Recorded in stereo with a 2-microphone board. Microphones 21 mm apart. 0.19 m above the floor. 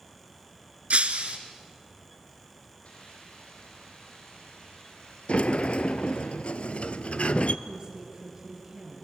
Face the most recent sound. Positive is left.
turn(degrees=-30)  # may be behind; listen again after turning